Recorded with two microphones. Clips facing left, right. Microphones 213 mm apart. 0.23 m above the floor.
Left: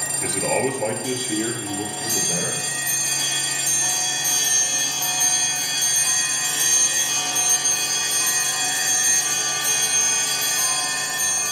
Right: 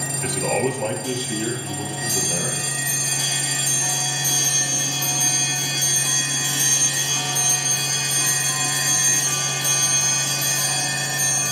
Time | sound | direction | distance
0.2 | a man speaking | 5° left (ahead or behind) | 3 m